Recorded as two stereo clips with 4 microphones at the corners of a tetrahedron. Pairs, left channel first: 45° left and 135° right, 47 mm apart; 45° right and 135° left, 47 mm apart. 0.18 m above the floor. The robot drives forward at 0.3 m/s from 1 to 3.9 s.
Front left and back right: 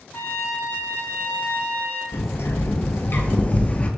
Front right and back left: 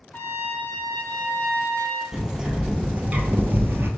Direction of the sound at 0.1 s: 5° left.